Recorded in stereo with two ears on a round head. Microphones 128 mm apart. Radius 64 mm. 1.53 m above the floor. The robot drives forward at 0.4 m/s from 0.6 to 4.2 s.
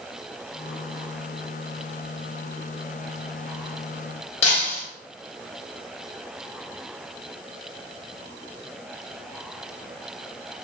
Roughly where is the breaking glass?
Left.